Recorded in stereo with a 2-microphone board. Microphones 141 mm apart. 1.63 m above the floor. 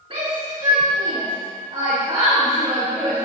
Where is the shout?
45° right (ahead or behind), 3.5 m; by 3.2 s 30° right (ahead or behind), 5 m.